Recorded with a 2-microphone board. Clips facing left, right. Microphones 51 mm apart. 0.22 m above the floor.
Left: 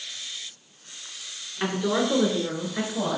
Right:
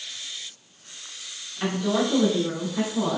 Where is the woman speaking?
30° left (ahead or behind), 2 m; by 3.2 s 55° left (ahead or behind), 2.5 m.